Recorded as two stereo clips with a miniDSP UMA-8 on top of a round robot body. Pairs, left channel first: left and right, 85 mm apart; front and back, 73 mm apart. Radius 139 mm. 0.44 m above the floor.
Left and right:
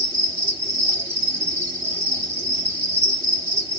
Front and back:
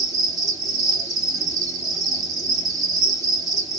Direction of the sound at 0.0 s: 150° right.